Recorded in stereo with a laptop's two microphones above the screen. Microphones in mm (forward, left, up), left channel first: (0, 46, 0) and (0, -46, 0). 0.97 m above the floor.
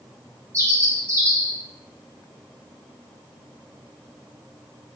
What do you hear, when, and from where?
0.5 s a bird: 35° right (ahead or behind), 1.6 m